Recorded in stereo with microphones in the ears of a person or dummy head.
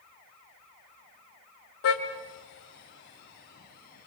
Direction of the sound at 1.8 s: 70° left (ahead or behind).